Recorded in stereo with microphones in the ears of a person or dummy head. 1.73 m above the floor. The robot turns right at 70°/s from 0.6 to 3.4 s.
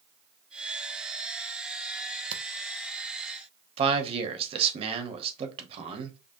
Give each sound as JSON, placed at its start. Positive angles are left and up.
{"t": 2.3, "sound": "a camera shutter", "side_deg": -45, "distance_m": 0.6}
{"t": 3.8, "sound": "a man speaking", "side_deg": -40, "distance_m": 0.9}